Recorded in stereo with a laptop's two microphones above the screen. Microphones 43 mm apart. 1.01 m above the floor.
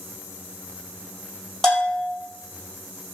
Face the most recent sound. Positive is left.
turn(degrees=5)  # may be behind; listen again after turning